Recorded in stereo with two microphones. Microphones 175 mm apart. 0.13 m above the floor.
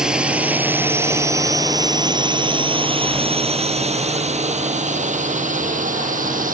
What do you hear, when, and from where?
0.0 s a drone: 5° right (ahead or behind); by 6.5 s 50° right (ahead or behind)